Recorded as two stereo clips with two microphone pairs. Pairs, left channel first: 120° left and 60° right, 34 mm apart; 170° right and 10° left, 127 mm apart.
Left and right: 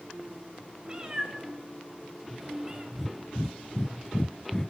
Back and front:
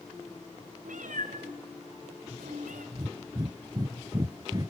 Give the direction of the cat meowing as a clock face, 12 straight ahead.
12 o'clock.